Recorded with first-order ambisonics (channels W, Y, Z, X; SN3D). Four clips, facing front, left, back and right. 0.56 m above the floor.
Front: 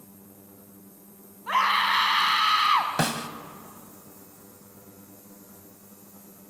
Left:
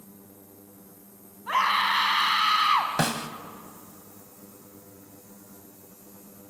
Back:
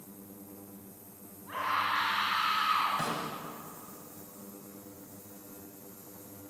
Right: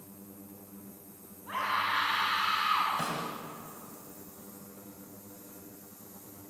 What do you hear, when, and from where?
1.5 s a scream: 40° left, 4.5 m
3.0 s a snare drum: 45° left, 1.3 m